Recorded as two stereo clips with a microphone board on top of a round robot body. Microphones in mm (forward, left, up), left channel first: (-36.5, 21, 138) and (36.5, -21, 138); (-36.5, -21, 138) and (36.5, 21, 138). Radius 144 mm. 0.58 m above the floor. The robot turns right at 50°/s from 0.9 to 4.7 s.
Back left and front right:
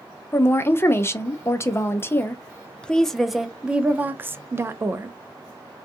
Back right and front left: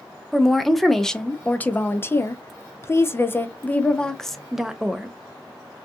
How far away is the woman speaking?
About 0.6 m.